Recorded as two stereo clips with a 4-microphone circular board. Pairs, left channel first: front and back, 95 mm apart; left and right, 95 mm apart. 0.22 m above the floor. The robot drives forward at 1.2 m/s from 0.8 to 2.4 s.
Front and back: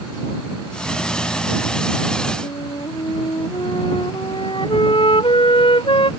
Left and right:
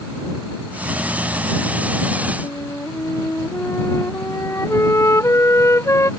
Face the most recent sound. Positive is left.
turn(degrees=25)